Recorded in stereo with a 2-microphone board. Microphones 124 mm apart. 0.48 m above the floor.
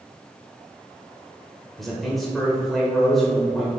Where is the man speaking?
Centre (ahead or behind), 1.8 m.